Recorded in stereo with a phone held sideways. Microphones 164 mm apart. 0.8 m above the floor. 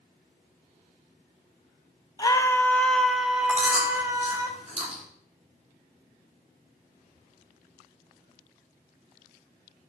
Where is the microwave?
No microwave in this recording.